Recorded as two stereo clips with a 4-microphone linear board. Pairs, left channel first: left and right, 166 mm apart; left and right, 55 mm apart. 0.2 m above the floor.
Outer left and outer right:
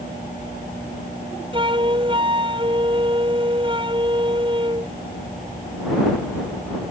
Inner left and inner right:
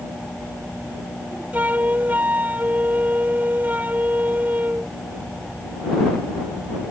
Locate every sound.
1.5 s a flute: 30° right (ahead or behind)